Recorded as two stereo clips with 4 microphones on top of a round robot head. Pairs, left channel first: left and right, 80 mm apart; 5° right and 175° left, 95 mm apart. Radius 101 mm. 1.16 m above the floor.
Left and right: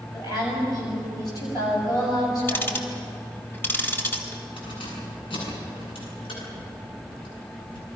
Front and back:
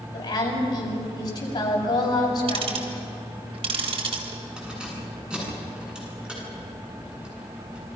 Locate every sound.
0.1 s a woman speaking: 45° left, 7.5 m
2.5 s ticking: 155° left, 3 m
4.6 s keys jangling: 95° left, 8.5 m